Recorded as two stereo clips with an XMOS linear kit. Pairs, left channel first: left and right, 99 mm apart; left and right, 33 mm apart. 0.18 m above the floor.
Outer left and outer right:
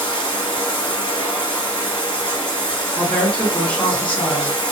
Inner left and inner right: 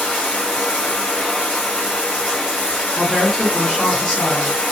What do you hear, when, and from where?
0.0 s running water: 60° left (ahead or behind), 1.4 m
3.0 s a woman speaking: 15° left (ahead or behind), 1.6 m